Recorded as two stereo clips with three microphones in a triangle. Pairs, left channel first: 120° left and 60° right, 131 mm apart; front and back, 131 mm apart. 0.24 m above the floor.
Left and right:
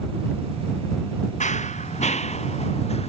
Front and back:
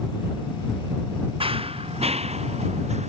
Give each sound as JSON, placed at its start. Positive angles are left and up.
{"t": 1.4, "sound": "running footsteps", "azimuth_deg": 135}